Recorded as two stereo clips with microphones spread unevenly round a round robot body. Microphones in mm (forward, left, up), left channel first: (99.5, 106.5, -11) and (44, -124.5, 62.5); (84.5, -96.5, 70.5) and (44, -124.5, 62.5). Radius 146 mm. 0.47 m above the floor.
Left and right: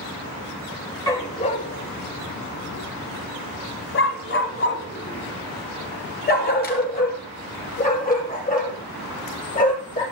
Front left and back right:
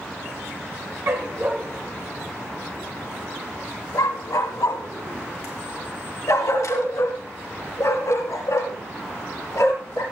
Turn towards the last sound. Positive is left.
turn(degrees=20)